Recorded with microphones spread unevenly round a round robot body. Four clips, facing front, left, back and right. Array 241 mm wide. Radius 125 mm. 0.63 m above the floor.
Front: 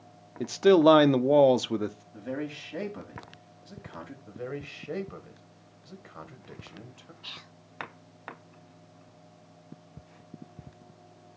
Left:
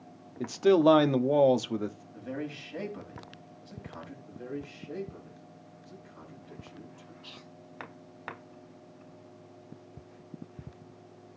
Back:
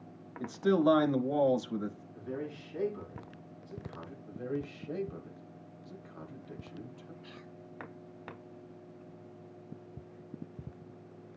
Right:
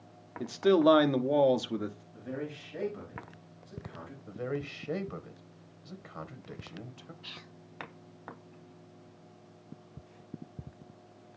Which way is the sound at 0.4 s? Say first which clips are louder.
Left 2 dB, front 8 dB; 10° left.